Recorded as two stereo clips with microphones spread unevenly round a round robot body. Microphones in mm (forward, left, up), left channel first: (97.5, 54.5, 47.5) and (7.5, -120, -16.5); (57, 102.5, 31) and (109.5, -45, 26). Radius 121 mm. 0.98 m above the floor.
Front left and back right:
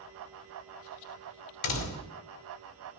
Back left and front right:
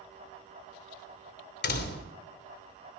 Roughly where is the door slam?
Left.